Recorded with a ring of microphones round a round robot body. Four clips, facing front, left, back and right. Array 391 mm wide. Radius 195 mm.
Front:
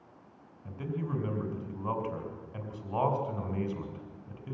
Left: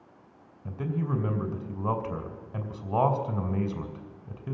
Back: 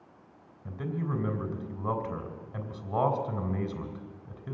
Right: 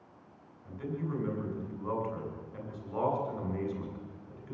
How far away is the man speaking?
About 3 m.